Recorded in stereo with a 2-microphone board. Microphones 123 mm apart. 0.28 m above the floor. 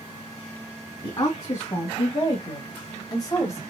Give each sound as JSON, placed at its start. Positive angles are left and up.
{"t": 1.0, "sound": "a woman speaking", "side_deg": 45, "distance_m": 2.0}